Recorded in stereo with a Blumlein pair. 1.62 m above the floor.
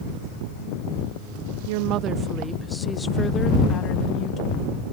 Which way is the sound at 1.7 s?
50° right.